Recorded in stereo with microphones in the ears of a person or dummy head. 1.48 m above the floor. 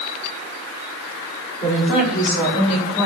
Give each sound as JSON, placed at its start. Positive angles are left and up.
{"t": 1.6, "sound": "a woman speaking", "side_deg": 40, "distance_m": 4.5}